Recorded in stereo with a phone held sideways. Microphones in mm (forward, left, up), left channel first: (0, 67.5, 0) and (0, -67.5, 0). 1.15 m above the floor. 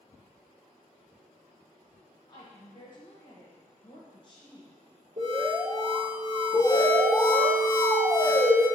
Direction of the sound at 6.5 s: 55° right (ahead or behind).